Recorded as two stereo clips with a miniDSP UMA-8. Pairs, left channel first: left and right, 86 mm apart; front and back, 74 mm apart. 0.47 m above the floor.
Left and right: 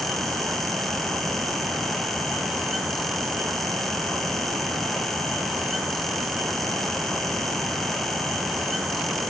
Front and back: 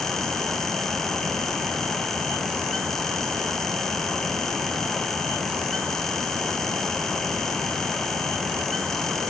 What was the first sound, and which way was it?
Only background noise.